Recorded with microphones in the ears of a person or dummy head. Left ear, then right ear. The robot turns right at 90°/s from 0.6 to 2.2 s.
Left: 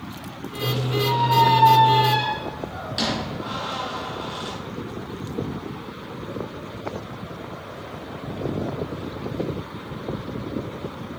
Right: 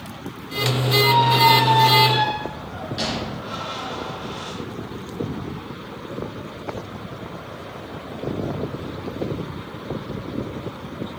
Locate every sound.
1.0 s a squeak: 65° right (ahead or behind), 3.5 m; by 4.6 s 25° left (ahead or behind), 3.5 m